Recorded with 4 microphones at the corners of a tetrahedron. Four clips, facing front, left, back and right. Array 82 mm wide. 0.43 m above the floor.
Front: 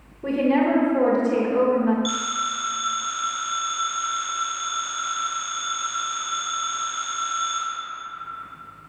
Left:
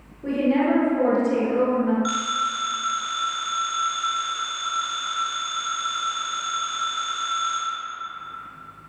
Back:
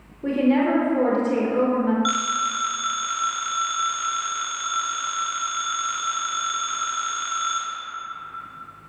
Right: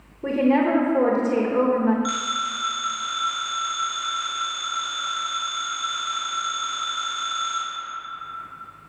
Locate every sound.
0.2 s a woman speaking: 90° right, 1.1 m
2.0 s a phone ringing: 175° right, 2.5 m